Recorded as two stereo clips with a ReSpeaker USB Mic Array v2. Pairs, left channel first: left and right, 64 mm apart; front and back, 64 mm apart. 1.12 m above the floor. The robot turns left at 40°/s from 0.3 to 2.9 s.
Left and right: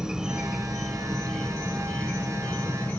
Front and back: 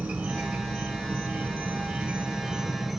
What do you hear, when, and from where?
0.0 s an insect: 150° right, 1.1 m; by 3.0 s 110° left, 1.1 m